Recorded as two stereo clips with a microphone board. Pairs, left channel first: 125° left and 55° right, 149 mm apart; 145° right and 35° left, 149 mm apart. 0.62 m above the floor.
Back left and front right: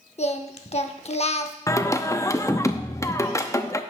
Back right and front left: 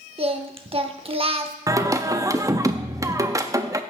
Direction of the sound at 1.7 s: 80° left.